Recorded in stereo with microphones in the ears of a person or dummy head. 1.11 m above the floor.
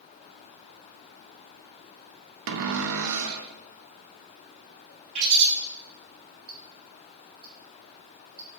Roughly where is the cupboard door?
Right.